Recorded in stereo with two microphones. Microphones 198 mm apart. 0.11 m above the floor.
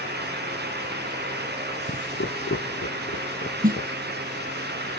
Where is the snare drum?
45° right (ahead or behind).